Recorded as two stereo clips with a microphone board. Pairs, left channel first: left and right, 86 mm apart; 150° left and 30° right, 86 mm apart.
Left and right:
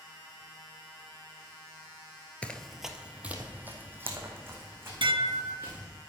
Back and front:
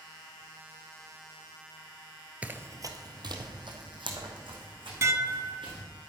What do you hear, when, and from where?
2.4 s running footsteps: 30° left, 1.0 m; by 5.8 s 30° right, 5.5 m
5.0 s dishes clattering: 85° right, 0.8 m